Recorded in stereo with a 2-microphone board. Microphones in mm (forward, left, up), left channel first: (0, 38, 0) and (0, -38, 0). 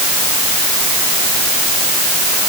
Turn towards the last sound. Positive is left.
No sound to turn to.